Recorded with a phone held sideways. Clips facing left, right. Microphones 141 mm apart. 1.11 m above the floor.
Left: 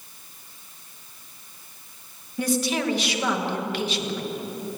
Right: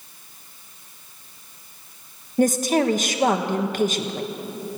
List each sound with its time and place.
2.4 s a woman speaking: 45° right (ahead or behind), 1.2 m